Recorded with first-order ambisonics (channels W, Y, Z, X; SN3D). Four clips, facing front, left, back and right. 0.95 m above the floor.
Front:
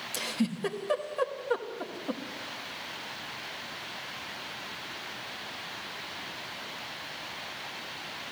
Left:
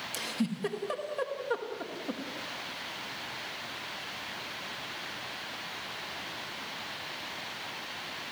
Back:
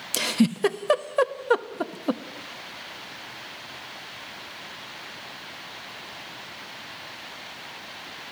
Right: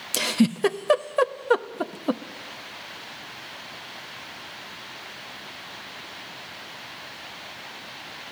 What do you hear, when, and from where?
0.1 s a giggle: 135° right, 1.0 m